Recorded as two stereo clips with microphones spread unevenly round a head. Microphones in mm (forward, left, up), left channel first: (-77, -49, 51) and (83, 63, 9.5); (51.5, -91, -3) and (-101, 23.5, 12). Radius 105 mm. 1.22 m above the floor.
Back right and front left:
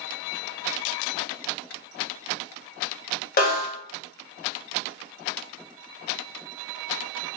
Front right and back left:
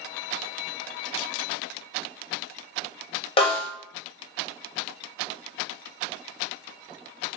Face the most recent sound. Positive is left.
turn(degrees=-100)